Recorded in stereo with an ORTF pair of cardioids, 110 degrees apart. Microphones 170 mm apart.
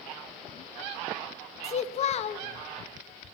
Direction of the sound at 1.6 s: 40° left.